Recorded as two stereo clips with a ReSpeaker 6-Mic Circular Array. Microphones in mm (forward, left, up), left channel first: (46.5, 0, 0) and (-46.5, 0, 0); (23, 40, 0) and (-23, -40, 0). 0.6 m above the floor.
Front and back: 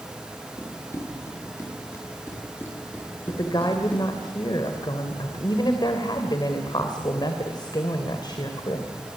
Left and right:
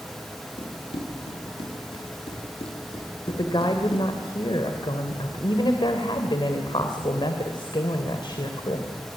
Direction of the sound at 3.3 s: 35° left.